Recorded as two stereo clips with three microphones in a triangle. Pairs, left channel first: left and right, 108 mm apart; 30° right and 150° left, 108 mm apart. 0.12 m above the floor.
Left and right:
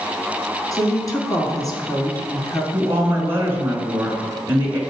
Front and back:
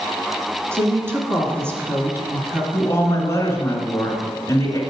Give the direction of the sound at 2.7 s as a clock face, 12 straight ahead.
2 o'clock.